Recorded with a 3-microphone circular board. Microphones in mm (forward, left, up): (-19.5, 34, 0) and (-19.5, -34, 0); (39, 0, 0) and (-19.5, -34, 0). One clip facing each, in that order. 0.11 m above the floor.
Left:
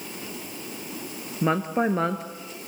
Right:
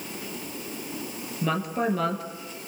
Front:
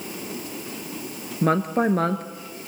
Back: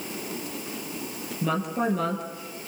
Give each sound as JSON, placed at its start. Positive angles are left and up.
{"t": 1.4, "sound": "a woman speaking", "azimuth_deg": 45, "distance_m": 1.9}